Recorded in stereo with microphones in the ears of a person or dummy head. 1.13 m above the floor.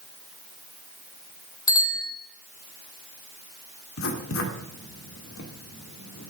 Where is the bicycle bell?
10° left (ahead or behind), 2.5 m.